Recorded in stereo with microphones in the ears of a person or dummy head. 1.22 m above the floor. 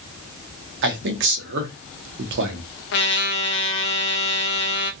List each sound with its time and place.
0.8 s a man speaking: 55° right (ahead or behind), 0.9 m
2.9 s a trumpet: 55° left (ahead or behind), 0.9 m